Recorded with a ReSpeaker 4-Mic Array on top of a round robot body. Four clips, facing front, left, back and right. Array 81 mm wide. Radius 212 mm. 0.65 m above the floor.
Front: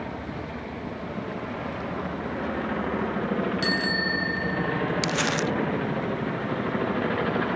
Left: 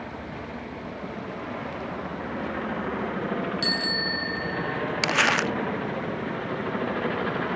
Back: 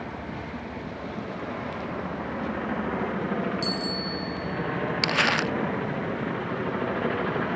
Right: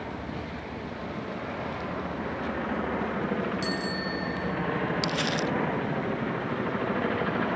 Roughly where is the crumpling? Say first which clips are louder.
Left 5 dB, back 1 dB; left.